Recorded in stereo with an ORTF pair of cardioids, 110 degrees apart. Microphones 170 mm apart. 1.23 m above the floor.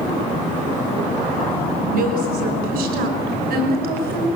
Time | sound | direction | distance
1.8 | a woman speaking | 70° right | 5.5 m